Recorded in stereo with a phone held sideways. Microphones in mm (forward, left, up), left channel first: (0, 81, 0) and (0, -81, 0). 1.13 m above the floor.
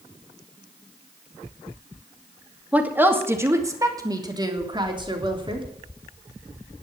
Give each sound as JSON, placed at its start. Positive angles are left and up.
{"t": 2.7, "sound": "a woman speaking", "side_deg": -10, "distance_m": 2.5}